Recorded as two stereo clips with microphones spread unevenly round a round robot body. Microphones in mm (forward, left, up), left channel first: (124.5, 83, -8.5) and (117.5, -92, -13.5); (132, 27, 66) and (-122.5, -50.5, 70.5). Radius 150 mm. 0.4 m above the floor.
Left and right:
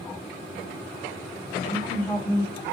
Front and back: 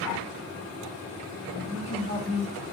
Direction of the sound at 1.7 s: 30° left.